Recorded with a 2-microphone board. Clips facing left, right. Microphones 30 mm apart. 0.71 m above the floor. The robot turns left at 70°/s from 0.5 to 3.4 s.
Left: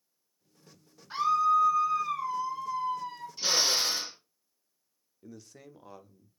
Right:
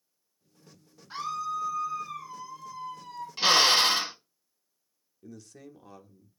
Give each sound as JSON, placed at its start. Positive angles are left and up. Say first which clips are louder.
{"t": 1.1, "sound": "a scream", "louder": "left 8 dB", "azimuth_deg": 170, "distance_m": 0.9}
{"t": 3.4, "sound": "a drill", "louder": "right 7 dB", "side_deg": -70, "distance_m": 0.8}
{"t": 5.2, "sound": "a man speaking", "louder": "right 2 dB", "side_deg": 10, "distance_m": 0.5}